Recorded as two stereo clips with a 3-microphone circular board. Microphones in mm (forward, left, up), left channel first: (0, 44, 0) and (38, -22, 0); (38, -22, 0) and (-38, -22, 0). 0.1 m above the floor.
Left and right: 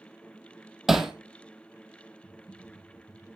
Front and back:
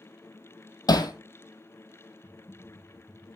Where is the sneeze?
I don't hear a sneeze.